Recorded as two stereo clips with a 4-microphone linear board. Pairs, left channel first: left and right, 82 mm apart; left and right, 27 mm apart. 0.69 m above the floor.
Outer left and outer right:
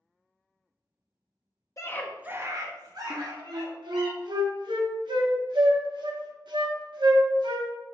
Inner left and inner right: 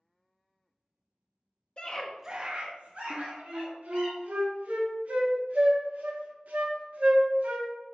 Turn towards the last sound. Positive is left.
turn(degrees=-65)  # may be behind; listen again after turning